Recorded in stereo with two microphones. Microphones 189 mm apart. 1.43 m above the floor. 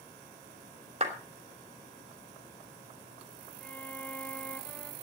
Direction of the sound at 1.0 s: 35° right (ahead or behind).